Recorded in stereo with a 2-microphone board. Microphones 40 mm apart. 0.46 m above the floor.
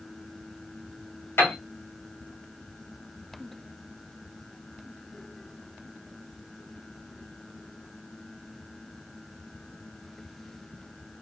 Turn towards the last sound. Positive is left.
turn(degrees=70)  # may be behind; listen again after turning